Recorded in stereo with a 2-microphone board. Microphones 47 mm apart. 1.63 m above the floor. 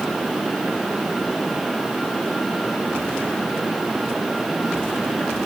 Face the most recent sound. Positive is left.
No sound to turn to.